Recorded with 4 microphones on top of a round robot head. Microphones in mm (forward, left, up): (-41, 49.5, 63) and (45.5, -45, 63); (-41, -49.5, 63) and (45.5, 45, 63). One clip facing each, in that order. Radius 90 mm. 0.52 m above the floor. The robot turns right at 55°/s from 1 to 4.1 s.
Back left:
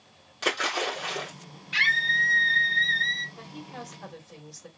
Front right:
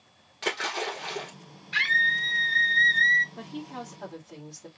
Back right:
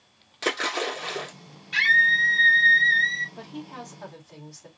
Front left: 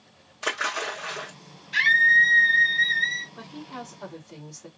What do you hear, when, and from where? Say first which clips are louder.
0.4 s a splash: back left 2 dB, back right 3 dB; 150° right, 2.5 m; by 1.3 s 135° right, 2.5 m
1.7 s a scream: even, front left 1 dB; 150° right, 3 m; by 3.2 s 65° right, 3 m
3.4 s a woman speaking: front right 3 dB, front left 2 dB; 65° right, 2.5 m; by 4.7 s 20° right, 2.5 m